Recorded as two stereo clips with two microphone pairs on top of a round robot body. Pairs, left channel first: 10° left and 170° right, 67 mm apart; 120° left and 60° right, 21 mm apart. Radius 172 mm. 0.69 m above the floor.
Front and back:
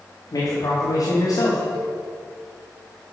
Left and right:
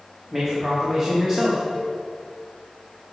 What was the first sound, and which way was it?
A man speaking, 10° right.